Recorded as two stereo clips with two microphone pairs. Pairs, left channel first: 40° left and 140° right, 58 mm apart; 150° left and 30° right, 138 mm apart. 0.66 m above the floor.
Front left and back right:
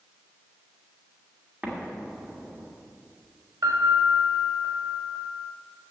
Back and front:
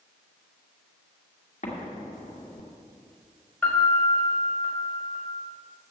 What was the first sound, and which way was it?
An explosion, 155° left.